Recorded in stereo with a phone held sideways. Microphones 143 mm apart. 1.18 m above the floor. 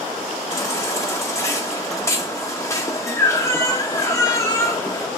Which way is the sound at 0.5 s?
20° left (ahead or behind).